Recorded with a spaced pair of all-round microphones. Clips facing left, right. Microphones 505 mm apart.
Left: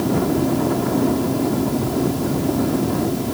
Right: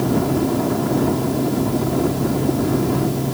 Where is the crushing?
I don't hear crushing.